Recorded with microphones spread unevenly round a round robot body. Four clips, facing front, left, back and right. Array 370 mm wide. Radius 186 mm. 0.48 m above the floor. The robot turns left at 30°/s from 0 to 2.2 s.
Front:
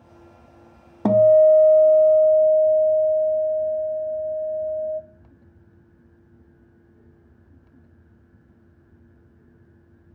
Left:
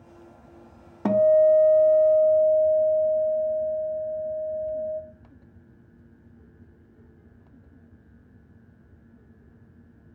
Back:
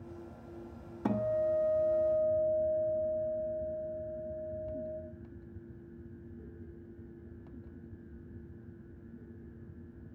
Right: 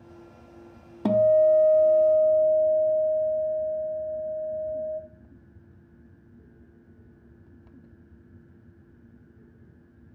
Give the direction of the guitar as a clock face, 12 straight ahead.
1 o'clock.